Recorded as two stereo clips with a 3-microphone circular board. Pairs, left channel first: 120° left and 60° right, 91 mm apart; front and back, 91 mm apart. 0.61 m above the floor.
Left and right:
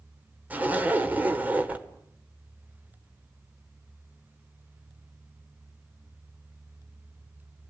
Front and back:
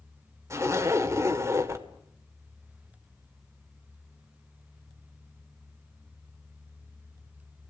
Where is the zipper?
130° right, 1.9 m.